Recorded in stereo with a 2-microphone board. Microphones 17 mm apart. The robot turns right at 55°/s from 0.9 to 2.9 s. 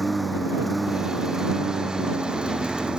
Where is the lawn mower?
Straight behind; by 3.0 s 70° right.